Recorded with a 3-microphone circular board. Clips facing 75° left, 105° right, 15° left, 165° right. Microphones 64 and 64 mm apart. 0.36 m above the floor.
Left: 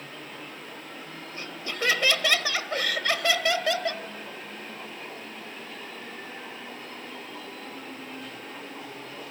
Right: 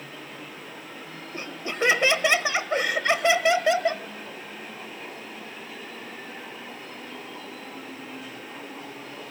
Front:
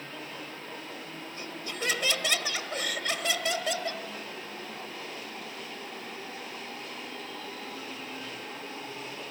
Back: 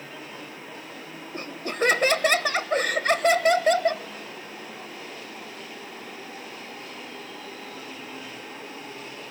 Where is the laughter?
165° right, 1.3 m.